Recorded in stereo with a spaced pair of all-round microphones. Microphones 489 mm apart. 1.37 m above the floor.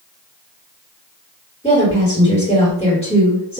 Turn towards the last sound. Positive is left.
turn(degrees=10)  # may be behind; listen again after turning